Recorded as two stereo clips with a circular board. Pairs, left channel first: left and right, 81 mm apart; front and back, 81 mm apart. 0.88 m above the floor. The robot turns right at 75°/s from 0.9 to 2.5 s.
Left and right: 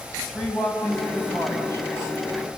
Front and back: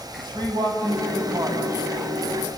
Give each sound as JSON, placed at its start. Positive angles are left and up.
{"t": 0.2, "sound": "a man speaking", "azimuth_deg": 170, "distance_m": 6.5}